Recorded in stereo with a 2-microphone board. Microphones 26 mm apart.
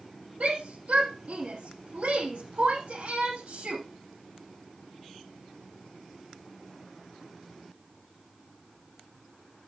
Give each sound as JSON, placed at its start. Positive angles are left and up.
{"t": 0.4, "sound": "a shout", "side_deg": -70, "distance_m": 5.5}